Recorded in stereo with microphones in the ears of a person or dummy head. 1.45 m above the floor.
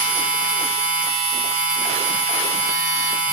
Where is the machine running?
55° right (ahead or behind), 1.4 m.